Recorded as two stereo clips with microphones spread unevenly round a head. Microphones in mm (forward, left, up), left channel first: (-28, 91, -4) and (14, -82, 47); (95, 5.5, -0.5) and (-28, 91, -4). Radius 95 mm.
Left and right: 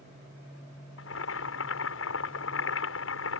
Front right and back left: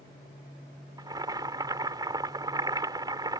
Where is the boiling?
85° left.